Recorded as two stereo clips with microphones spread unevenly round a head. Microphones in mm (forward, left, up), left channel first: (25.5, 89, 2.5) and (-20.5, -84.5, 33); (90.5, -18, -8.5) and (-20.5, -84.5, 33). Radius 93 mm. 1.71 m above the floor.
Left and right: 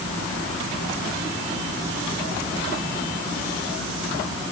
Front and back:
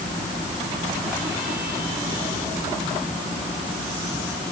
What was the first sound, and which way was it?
Only background noise.